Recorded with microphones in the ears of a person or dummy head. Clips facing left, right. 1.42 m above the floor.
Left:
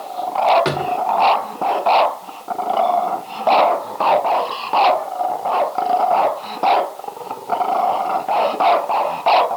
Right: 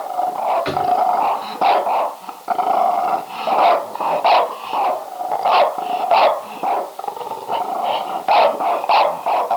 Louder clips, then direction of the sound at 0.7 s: Right 2 dB; 55° left (ahead or behind).